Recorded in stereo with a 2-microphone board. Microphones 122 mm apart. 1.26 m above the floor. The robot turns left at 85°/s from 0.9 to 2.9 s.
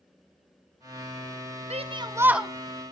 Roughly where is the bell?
I don't hear a bell.